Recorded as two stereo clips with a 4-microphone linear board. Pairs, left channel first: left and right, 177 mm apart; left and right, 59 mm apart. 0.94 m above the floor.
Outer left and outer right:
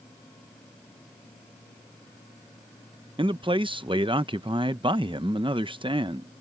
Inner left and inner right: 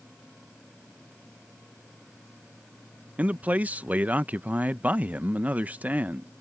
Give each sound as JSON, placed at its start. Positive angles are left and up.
{"t": 3.2, "sound": "a man speaking", "side_deg": -30}